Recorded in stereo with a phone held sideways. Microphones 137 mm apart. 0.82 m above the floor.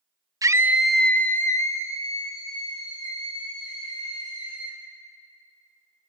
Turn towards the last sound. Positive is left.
turn(degrees=35)  # may be behind; listen again after turning